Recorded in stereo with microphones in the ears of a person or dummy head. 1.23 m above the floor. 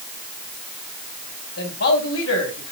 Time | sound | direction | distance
1.6 | a man speaking | 70° left (ahead or behind) | 4 m